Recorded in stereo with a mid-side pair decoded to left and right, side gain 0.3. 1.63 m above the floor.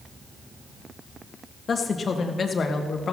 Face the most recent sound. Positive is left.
turn(degrees=60)